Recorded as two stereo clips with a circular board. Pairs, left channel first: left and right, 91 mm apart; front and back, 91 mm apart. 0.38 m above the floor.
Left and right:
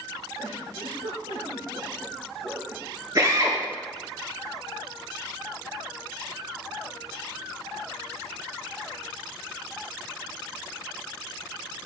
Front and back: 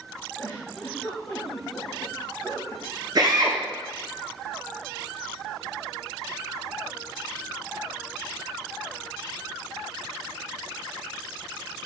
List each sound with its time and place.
0.4 s a giggle: 70° right, 6 m
3.1 s a drill: 135° right, 4.5 m